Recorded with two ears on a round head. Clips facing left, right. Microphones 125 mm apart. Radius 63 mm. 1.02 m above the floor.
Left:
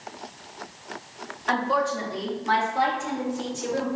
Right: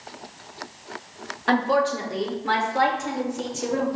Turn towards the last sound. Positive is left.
turn(degrees=-75)  # may be behind; listen again after turning